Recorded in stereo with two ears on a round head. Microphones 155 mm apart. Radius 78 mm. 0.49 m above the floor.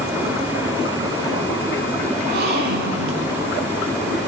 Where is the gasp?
60° right (ahead or behind), 1.3 m.